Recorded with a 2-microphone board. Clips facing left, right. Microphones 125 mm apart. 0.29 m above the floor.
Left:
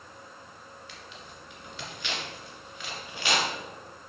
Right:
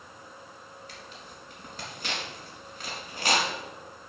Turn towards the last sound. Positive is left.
turn(degrees=-40)  # may be behind; listen again after turning